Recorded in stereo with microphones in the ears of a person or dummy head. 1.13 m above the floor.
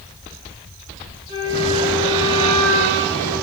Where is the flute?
20° right (ahead or behind), 2 m.